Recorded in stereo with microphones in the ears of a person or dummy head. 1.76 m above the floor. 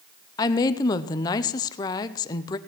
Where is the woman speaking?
25° left (ahead or behind), 0.7 m.